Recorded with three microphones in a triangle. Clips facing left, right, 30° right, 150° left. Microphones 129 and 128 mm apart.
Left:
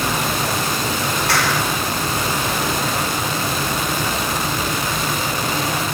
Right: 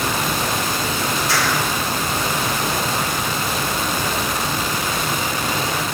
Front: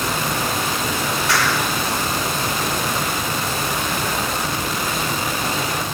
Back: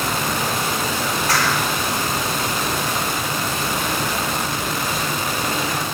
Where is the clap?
105° left, 5 m.